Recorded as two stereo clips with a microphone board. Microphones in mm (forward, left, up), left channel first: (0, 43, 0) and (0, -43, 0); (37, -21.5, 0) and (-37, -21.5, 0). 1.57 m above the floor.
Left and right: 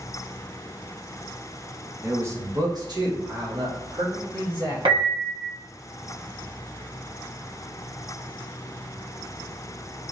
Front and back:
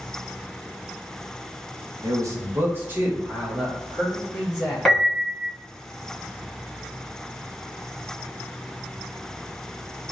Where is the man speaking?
150° right, 0.8 m; by 4.8 s 95° right, 2 m.